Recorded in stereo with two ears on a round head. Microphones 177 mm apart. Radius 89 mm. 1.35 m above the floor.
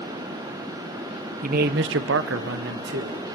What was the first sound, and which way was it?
A man speaking, 45° right (ahead or behind).